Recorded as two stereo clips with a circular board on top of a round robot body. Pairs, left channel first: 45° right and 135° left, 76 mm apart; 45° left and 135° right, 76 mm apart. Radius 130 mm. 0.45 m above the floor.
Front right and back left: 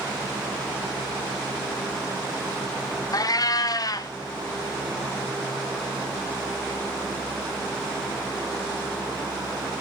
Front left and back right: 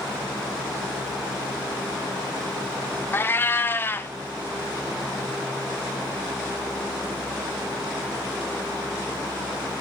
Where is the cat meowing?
15° right, 0.6 m.